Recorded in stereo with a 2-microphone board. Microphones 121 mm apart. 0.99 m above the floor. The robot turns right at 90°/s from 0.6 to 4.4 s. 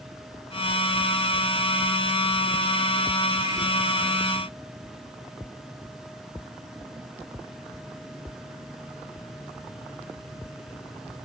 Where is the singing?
I don't hear singing.